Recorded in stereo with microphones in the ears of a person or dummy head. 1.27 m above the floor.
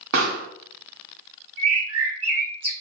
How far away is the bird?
About 1.4 m.